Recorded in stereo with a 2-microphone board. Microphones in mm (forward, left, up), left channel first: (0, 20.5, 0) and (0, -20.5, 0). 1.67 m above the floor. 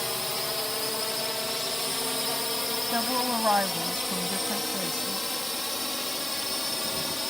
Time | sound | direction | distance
0.0 | a drone | 5° left (ahead or behind) | ?
2.9 | a woman speaking | 45° right (ahead or behind) | ?